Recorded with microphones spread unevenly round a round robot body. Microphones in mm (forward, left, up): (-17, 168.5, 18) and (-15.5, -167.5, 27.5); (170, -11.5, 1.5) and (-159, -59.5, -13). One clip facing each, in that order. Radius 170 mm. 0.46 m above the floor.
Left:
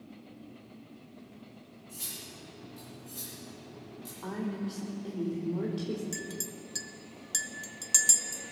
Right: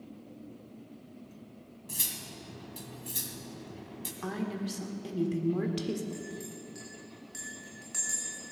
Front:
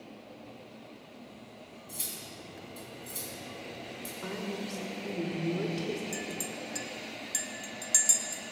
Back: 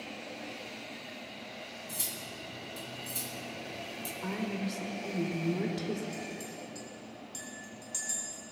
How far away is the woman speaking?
About 1.6 m.